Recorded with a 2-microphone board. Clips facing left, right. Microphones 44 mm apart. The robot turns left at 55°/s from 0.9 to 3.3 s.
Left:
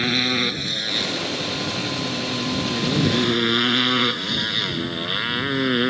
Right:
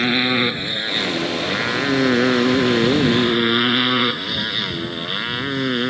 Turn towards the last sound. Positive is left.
turn(degrees=5)  # may be behind; listen again after turning